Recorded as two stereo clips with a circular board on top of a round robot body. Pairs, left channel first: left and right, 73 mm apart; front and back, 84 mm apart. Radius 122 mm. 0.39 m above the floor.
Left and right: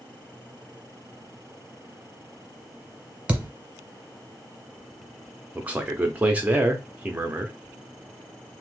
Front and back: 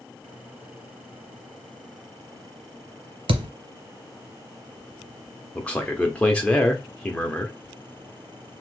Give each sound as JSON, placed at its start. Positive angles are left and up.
{"t": 3.3, "sound": "a thud", "azimuth_deg": -165, "distance_m": 0.6}
{"t": 5.5, "sound": "a man speaking", "azimuth_deg": -50, "distance_m": 0.8}